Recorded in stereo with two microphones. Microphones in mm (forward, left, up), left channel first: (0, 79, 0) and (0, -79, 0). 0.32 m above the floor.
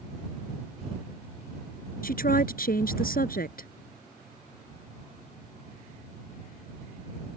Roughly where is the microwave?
I don't hear a microwave.